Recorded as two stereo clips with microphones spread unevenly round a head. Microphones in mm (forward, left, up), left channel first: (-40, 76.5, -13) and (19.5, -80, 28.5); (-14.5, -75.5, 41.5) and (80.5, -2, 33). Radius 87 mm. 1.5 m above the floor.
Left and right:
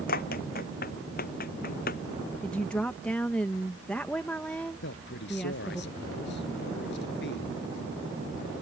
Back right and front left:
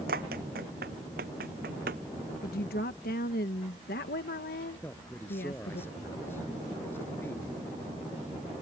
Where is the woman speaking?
160° right.